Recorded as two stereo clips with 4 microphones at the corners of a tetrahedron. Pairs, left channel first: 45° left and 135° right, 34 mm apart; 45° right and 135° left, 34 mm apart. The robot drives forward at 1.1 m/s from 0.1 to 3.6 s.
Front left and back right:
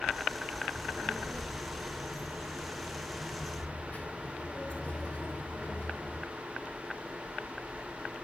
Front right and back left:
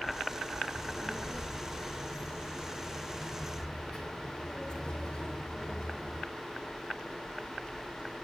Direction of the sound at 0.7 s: 10° left.